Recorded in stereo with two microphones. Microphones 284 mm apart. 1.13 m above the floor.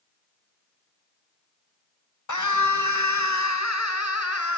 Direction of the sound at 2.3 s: 80° left.